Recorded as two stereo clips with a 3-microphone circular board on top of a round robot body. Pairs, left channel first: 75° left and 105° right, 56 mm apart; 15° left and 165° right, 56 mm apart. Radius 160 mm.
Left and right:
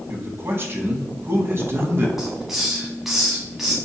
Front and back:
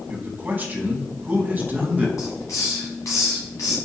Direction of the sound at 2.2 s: 20° right.